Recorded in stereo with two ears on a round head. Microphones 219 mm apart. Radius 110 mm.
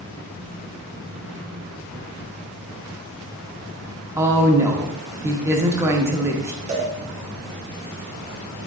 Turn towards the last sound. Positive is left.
turn(degrees=-30)  # may be behind; listen again after turning